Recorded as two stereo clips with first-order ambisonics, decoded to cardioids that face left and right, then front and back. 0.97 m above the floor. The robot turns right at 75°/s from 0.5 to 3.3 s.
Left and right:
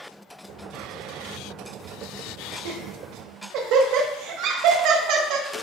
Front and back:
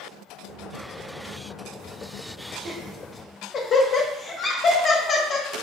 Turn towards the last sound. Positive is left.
turn(degrees=-60)